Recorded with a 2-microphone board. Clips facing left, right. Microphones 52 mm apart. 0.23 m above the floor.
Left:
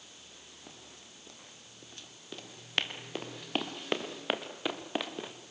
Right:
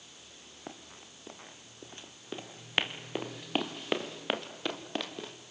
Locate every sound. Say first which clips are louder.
0.7 s running footsteps: right 8 dB; 35° right (ahead or behind), 3 m; by 5.3 s 10° left (ahead or behind), 2.5 m